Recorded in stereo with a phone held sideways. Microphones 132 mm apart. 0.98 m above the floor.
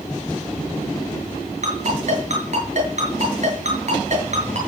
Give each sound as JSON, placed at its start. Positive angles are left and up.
{"t": 1.6, "sound": "a ringtone", "side_deg": -55, "distance_m": 7.5}